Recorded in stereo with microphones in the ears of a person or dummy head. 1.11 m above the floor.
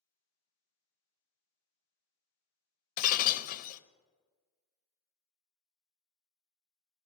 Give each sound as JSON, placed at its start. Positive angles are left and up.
{"t": 3.0, "sound": "breaking glass", "side_deg": 45, "distance_m": 0.6}